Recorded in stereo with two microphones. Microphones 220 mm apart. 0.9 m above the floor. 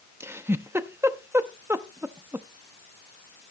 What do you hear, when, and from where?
0.2 s a giggle: 10° right (ahead or behind), 0.7 m